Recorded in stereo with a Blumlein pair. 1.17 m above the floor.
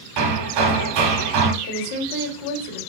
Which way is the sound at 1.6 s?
60° left.